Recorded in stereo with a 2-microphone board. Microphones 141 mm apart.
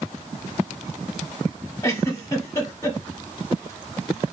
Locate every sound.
1.8 s a giggle: 20° left (ahead or behind), 0.9 m